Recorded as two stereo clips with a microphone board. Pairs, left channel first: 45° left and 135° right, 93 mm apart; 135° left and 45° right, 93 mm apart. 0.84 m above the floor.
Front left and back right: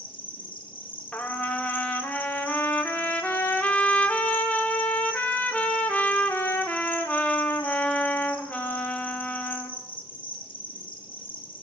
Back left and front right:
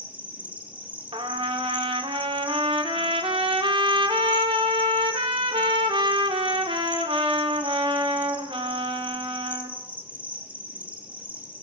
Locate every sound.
0.0 s an insect: 30° left, 1.1 m
1.1 s a trumpet: 25° right, 1.0 m